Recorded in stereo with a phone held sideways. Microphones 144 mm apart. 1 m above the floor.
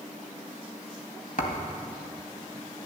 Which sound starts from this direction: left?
A thud, at 1.4 s.